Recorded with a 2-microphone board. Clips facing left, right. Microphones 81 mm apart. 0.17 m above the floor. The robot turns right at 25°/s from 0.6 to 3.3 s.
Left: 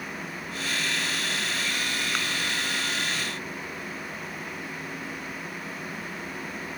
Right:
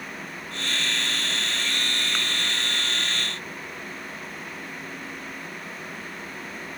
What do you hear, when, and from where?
Only background noise.